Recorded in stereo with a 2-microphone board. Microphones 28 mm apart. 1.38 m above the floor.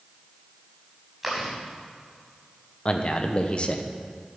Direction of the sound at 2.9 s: 40° left (ahead or behind).